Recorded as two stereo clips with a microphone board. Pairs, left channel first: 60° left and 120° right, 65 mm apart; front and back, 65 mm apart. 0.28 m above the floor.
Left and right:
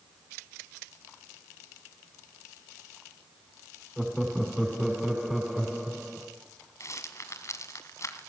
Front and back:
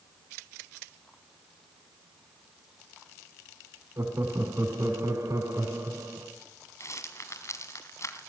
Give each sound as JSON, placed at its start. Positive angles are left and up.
{"t": 4.0, "sound": "laughter", "azimuth_deg": 150, "distance_m": 3.0}
{"t": 6.8, "sound": "a rattle", "azimuth_deg": 30, "distance_m": 2.0}